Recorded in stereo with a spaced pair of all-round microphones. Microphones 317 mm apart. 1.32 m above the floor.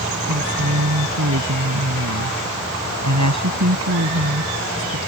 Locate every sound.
0.3 s a woman speaking: 60° right (ahead or behind)